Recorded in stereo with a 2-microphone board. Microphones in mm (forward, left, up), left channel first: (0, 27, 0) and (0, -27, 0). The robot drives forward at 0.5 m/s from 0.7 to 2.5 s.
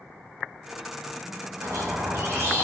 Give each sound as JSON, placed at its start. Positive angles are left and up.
{"t": 1.6, "sound": "a squeak", "side_deg": -70, "distance_m": 0.6}